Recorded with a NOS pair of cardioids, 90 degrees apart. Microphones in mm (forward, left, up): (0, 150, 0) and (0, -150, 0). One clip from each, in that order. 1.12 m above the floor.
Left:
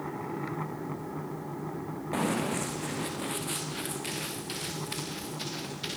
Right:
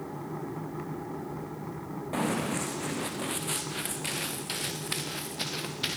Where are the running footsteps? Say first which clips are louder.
Even; straight ahead, 4 m; by 6.0 s 45° right, 5.5 m.